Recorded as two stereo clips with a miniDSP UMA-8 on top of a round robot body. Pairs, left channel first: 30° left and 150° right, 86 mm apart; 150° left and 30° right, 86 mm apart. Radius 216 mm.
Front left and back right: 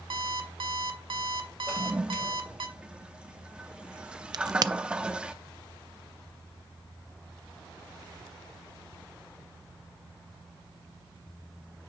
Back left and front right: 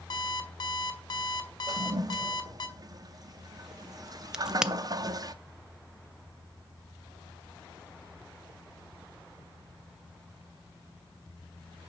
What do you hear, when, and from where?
0.1 s an alarm clock: 170° right, 1.9 m
1.7 s a toilet flushing: 70° right, 0.8 m
4.3 s a crack: 110° right, 0.6 m